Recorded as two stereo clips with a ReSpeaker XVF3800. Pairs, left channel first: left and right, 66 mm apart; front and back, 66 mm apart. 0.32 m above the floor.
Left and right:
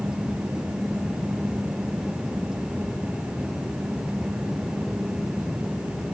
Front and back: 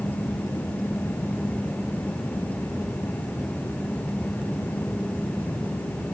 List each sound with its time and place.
Only background noise.